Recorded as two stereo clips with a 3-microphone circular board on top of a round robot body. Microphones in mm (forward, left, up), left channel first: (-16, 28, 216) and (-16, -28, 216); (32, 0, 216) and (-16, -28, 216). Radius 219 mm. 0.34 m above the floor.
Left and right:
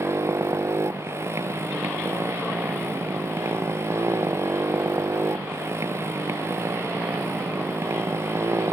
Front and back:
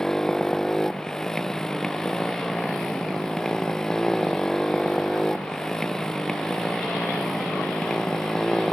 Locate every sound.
0.0 s a motorcycle: 50° right